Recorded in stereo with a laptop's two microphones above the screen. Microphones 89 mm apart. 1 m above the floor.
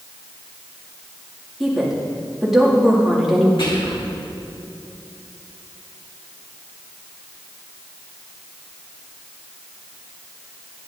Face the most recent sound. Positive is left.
turn(degrees=60)  # may be behind; listen again after turning